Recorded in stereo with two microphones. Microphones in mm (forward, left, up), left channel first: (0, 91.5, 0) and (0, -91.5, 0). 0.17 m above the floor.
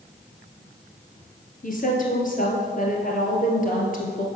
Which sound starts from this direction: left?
A woman speaking, at 1.6 s.